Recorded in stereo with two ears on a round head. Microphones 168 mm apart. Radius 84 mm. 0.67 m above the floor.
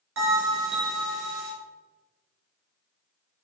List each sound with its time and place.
0.2 s a bell: 75° right (ahead or behind), 2 m